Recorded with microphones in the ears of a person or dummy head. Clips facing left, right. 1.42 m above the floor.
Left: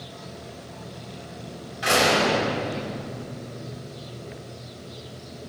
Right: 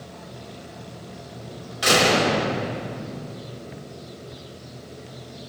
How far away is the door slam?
About 6.5 m.